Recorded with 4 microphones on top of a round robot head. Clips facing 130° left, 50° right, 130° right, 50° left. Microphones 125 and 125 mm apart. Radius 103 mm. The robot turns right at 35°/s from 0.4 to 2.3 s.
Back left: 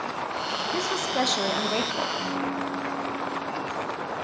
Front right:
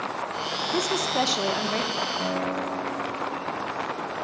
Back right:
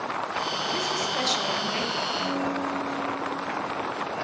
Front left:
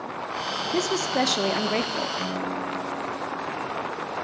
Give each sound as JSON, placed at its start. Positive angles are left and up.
{"t": 0.7, "sound": "a woman speaking", "azimuth_deg": 15, "distance_m": 1.3}
{"t": 2.2, "sound": "a guitar", "azimuth_deg": -15, "distance_m": 7.5}